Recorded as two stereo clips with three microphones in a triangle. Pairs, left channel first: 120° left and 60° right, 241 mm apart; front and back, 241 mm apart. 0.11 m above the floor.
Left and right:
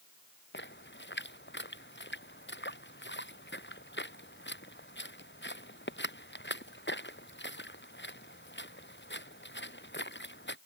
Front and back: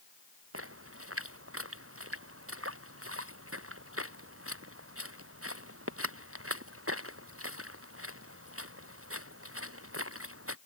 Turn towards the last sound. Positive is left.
turn(degrees=160)